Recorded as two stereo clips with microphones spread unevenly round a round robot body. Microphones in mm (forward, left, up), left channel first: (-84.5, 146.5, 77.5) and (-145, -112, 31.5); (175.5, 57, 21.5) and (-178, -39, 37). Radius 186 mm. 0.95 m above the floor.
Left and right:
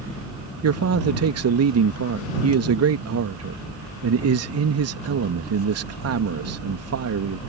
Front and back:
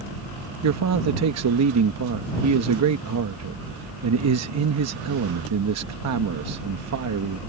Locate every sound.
0.6 s a man speaking: 115° right